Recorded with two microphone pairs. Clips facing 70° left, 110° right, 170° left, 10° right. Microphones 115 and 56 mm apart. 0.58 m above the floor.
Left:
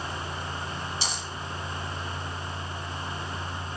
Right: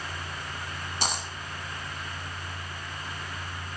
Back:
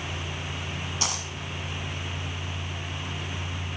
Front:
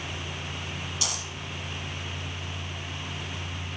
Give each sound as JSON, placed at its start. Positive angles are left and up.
{"t": 1.0, "sound": "a dropped coin", "azimuth_deg": -140, "distance_m": 1.3}